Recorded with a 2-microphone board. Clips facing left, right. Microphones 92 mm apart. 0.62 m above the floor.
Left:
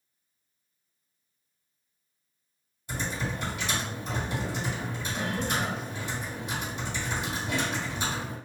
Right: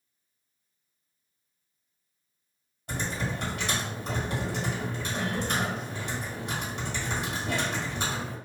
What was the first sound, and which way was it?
Typing on a keyboard, 65° right (ahead or behind).